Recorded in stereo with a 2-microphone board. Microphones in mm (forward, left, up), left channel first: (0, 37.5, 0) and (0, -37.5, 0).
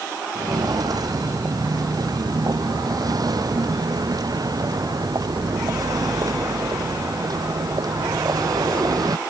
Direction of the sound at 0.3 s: 60° right (ahead or behind).